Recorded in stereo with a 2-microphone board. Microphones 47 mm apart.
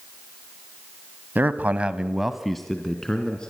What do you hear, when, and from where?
1.4 s a man speaking: 40° right (ahead or behind), 1.3 m; by 3.5 s 20° left (ahead or behind), 2.5 m